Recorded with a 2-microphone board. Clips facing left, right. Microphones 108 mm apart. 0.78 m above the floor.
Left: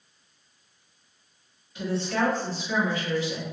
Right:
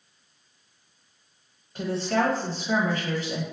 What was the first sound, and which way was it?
A woman speaking, 45° right (ahead or behind).